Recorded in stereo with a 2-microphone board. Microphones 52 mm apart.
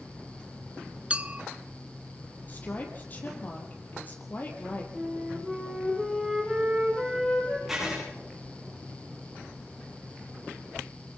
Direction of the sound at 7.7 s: 5° right (ahead or behind).